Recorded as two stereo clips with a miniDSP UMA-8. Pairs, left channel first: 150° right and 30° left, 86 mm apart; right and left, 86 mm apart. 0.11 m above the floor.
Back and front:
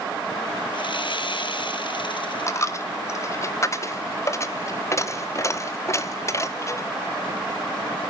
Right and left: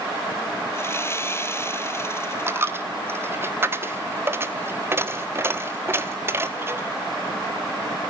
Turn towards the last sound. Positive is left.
turn(degrees=150)